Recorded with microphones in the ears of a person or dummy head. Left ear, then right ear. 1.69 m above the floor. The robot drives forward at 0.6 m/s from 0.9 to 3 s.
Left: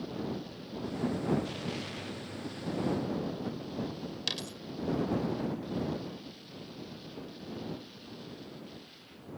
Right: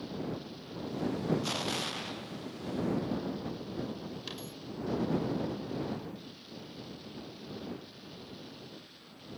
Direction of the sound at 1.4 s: 55° right (ahead or behind).